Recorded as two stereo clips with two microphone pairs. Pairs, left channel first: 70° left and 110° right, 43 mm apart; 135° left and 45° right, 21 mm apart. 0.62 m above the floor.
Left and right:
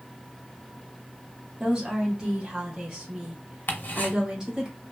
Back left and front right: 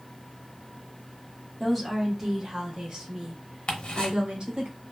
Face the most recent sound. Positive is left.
turn(degrees=110)